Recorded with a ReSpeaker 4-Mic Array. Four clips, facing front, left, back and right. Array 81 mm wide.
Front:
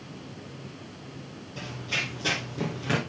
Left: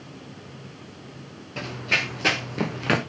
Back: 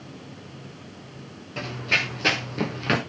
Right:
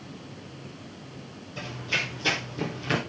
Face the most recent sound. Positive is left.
turn(degrees=115)